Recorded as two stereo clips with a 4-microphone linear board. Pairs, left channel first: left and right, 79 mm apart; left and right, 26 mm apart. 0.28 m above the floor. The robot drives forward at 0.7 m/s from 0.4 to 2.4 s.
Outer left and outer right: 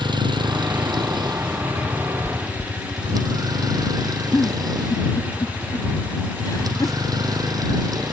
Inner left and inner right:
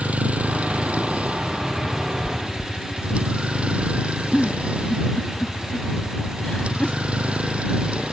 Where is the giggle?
55° left (ahead or behind).